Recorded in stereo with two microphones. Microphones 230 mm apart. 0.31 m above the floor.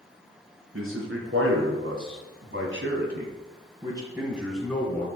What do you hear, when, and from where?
0.7 s a man speaking: 65° right (ahead or behind), 3.5 m; by 5.1 s 10° left (ahead or behind), 2.5 m